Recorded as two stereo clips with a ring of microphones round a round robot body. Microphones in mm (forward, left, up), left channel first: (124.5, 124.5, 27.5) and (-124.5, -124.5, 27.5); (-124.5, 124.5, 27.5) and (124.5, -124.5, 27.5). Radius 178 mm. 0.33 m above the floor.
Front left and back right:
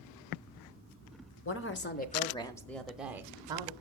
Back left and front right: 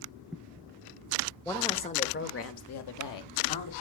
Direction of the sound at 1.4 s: 50° left.